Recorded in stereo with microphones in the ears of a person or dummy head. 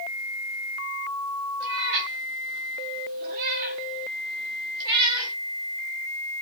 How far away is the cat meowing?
About 1.3 m.